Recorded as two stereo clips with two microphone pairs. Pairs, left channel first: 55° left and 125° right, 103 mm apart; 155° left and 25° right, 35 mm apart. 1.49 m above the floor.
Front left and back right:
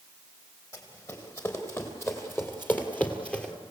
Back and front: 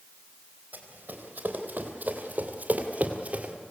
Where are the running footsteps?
Straight ahead, 3 m; by 3.5 s 25° right, 1.7 m.